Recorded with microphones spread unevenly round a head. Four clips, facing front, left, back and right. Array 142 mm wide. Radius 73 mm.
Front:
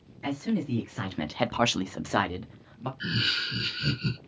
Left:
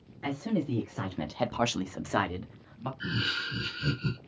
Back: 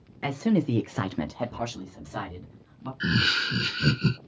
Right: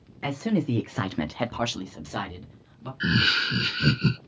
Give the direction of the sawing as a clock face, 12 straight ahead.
No sawing in this recording.